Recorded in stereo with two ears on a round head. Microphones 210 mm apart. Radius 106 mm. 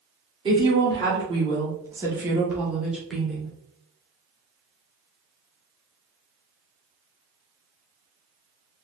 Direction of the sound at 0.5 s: 20° right (ahead or behind).